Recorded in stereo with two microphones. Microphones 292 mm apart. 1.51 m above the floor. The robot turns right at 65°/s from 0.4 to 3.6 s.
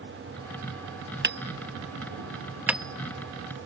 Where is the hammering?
35° right (ahead or behind); by 3.7 s 30° left (ahead or behind).